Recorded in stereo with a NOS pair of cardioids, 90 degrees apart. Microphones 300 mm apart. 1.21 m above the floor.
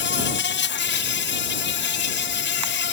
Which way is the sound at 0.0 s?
40° left.